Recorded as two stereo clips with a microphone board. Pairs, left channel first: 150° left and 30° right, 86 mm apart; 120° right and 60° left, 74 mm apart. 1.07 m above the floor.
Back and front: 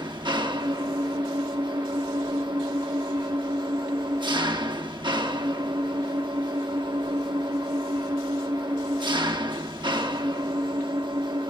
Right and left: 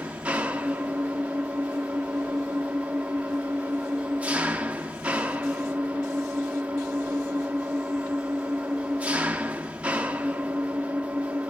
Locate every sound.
0.0 s an engine running: 10° right, 1.0 m